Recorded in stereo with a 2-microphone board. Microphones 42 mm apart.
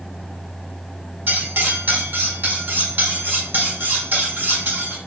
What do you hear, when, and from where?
1.3 s cutlery clinking: 50° right (ahead or behind), 1.0 m